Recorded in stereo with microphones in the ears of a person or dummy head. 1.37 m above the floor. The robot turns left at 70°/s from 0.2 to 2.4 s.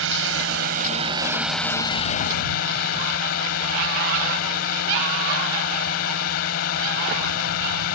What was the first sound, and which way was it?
A drone, 90° right.